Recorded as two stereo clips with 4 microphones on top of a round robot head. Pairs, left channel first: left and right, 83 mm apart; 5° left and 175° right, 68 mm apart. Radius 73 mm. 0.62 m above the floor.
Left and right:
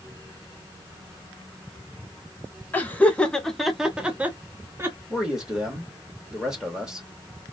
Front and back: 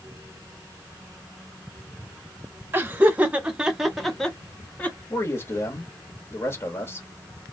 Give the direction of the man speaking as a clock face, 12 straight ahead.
12 o'clock.